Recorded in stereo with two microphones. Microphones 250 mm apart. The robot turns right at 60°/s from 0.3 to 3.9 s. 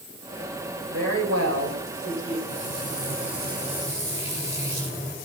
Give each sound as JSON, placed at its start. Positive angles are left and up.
{"t": 0.9, "sound": "a woman speaking", "azimuth_deg": -115, "distance_m": 5.0}
{"t": 2.5, "sound": "frying", "azimuth_deg": -95, "distance_m": 4.5}